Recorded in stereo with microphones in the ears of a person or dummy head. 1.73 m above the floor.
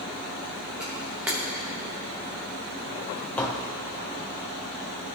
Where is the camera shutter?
5° right (ahead or behind), 1.2 m.